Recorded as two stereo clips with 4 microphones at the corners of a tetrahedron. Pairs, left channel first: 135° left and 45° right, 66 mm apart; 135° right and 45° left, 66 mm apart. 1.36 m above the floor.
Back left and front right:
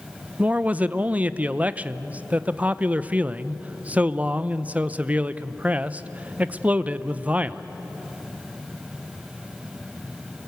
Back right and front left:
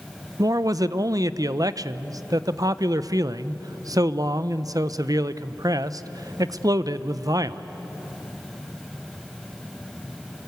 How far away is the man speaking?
About 0.6 m.